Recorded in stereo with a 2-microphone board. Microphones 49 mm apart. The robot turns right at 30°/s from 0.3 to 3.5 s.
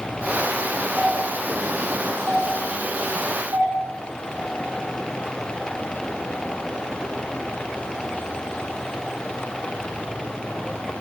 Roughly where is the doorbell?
Centre.